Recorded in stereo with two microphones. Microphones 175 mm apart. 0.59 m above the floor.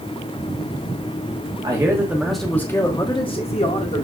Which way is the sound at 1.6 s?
25° right (ahead or behind).